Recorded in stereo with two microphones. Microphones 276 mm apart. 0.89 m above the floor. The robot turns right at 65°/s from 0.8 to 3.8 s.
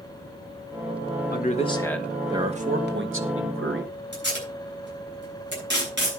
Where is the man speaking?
130° left, 1.4 m; by 4.0 s 65° right, 1.4 m.